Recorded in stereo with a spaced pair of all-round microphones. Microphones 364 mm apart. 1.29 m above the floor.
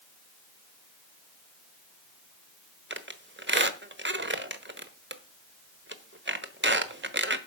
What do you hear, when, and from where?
2.9 s a squeak: 30° right (ahead or behind), 1.1 m